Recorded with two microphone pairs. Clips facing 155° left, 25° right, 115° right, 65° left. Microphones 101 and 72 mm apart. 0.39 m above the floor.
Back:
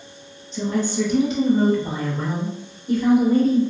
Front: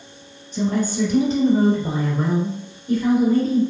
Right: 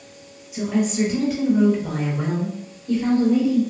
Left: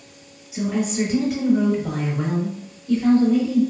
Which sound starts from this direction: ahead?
A woman speaking, at 0.5 s.